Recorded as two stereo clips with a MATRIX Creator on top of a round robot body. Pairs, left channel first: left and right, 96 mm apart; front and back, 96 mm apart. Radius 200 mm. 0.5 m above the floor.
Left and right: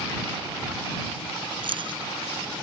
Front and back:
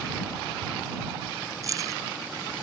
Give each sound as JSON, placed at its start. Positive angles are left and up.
{"t": 1.6, "sound": "keys jangling", "azimuth_deg": -125}